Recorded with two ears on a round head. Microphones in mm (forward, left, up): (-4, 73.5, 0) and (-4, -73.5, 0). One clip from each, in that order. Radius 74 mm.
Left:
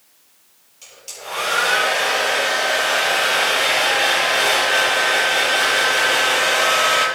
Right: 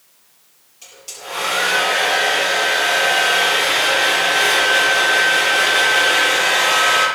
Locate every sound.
0.8 s a hair dryer: 10° left (ahead or behind), 8.5 m